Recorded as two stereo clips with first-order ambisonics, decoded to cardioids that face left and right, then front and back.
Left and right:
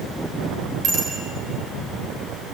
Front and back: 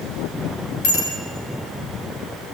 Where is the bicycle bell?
35° right, 6 m.